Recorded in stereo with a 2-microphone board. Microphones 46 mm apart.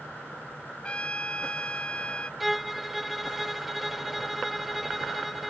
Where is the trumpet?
25° left (ahead or behind).